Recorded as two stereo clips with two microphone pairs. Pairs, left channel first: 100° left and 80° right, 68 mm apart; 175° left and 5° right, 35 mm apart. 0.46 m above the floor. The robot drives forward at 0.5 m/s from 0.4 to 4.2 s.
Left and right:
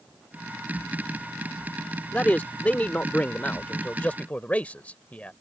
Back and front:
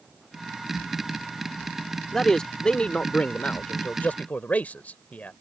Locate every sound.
2.1 s a man speaking: 120° left; by 5.3 s 165° left